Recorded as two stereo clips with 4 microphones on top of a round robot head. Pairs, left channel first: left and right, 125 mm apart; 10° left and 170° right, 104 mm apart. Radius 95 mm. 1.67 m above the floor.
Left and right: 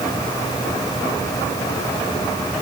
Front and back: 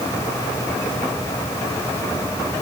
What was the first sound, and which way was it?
Only background noise.